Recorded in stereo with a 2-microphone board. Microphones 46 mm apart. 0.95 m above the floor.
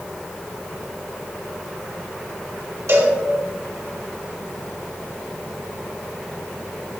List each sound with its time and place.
2.9 s a cowbell: 80° right, 2.5 m